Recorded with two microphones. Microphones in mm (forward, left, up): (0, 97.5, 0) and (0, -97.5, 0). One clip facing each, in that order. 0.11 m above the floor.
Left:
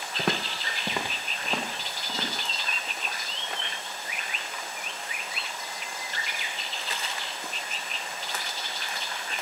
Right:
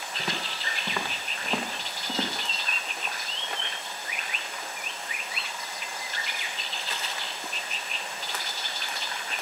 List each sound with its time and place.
0.2 s footsteps: 65° left (ahead or behind), 1.1 m; by 2.5 s 20° right (ahead or behind), 2.5 m